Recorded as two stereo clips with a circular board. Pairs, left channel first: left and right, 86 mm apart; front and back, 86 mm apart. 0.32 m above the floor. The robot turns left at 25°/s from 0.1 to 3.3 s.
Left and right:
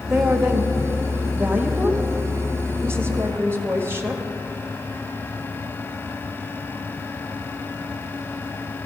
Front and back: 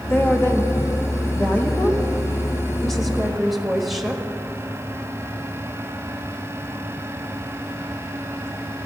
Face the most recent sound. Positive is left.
turn(degrees=-90)